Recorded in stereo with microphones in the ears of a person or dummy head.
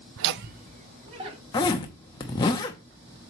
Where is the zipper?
25° left (ahead or behind), 0.9 m.